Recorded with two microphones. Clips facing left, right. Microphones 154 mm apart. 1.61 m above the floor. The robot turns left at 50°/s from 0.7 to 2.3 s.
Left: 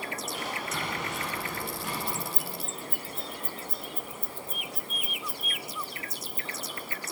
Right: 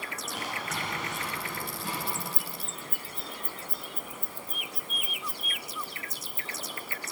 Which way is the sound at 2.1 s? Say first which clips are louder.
Left 2 dB; 15° left (ahead or behind).